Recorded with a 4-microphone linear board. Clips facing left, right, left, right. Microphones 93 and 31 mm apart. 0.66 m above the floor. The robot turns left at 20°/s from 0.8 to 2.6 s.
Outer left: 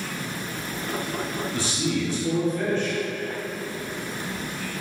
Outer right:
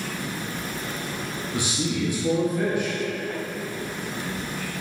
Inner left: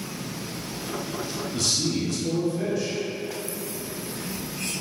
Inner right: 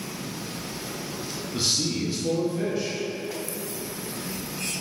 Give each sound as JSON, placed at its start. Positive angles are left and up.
{"t": 1.5, "sound": "a man speaking", "side_deg": -15, "distance_m": 0.6}